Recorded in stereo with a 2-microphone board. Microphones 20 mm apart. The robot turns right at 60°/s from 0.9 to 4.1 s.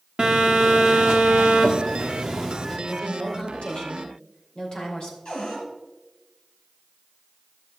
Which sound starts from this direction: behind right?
A phone buzzing, at 0.2 s.